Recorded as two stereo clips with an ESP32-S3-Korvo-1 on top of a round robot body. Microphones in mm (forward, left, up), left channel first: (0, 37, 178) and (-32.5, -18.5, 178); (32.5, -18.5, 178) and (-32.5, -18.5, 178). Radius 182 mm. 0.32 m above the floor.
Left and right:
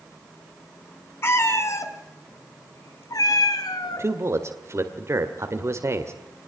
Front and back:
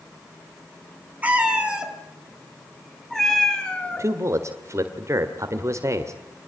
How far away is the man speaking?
About 2 m.